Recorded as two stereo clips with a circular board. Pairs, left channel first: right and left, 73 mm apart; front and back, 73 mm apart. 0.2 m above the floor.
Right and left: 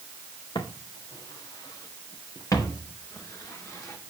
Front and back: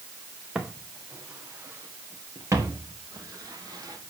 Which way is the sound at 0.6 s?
105° right.